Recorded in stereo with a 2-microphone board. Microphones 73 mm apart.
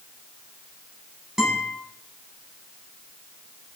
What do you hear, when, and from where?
1.4 s a guitar: 5° right (ahead or behind), 7.5 m